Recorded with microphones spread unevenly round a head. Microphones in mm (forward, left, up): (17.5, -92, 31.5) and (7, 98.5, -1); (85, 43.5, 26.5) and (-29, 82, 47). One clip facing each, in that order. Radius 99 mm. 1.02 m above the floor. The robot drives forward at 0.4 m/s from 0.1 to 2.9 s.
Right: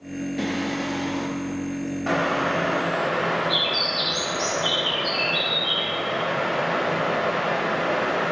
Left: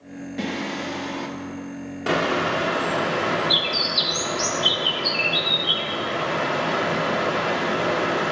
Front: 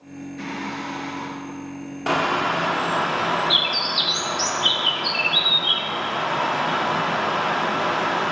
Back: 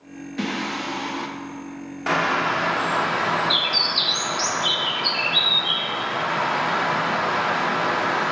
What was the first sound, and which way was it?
Singing, 175° right.